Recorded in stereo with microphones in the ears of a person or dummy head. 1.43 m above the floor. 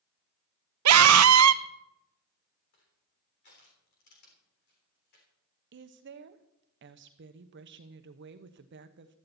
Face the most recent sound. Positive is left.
turn(degrees=-50)  # may be behind; listen again after turning